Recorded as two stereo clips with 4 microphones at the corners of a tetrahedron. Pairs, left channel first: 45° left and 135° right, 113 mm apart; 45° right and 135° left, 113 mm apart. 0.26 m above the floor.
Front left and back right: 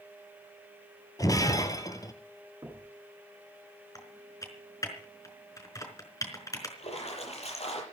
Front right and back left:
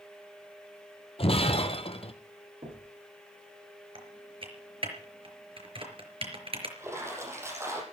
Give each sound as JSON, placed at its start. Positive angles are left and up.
{"t": 1.2, "sound": "breaking glass", "azimuth_deg": -15, "distance_m": 1.7}
{"t": 2.6, "sound": "knocking", "azimuth_deg": 170, "distance_m": 4.0}
{"t": 4.0, "sound": "typing on a keyboard", "azimuth_deg": 105, "distance_m": 4.5}
{"t": 6.8, "sound": "a splash", "azimuth_deg": 70, "distance_m": 7.0}